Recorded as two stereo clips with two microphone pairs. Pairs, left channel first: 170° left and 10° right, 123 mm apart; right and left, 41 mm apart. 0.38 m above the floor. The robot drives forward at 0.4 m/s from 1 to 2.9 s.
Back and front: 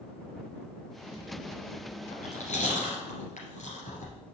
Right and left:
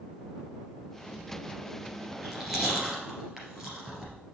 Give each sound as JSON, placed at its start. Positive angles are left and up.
{"t": 2.1, "sound": "chewing", "azimuth_deg": 170, "distance_m": 2.5}